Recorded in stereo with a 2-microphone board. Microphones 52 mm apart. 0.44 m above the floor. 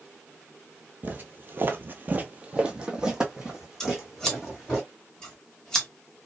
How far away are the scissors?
About 1.1 m.